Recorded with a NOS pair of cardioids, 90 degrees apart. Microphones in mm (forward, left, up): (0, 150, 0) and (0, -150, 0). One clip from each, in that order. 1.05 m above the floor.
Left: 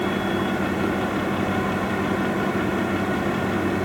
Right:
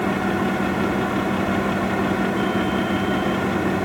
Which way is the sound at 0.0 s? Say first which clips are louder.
Right 2 dB; 5° right.